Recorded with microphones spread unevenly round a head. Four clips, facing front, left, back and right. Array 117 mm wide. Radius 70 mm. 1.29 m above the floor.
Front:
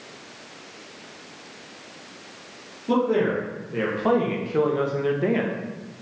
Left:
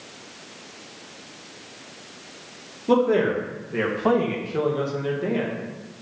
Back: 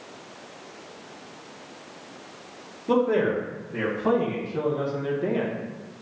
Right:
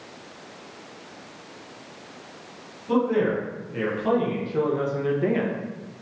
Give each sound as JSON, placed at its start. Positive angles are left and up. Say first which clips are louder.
{"t": 2.9, "sound": "a man speaking", "louder": "left 3 dB, even", "azimuth_deg": 90, "distance_m": 2.0}